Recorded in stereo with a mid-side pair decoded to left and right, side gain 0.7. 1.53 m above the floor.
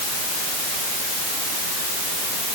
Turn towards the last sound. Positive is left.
No sound to turn to.